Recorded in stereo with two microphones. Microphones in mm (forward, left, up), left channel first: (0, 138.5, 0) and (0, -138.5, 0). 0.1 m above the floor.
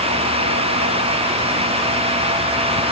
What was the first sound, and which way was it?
Only background noise.